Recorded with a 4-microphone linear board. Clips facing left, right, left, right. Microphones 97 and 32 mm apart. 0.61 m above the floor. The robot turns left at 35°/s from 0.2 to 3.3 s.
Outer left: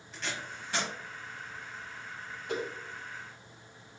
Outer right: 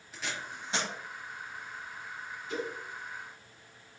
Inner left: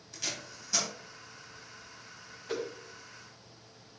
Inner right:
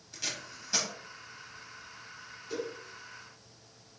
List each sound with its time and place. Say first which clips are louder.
0.1 s tape being pulled: even, even; 5° right (ahead or behind), 1.6 m; by 0.9 s 25° right (ahead or behind), 1.6 m
2.5 s a whoosh: outer left 1 dB, inner left 1 dB; 75° left (ahead or behind), 1.2 m; by 2.7 s 70° left (ahead or behind), 1.2 m